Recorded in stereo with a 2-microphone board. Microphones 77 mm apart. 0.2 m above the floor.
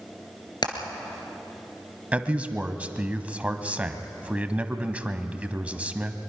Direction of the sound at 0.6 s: 70° left (ahead or behind).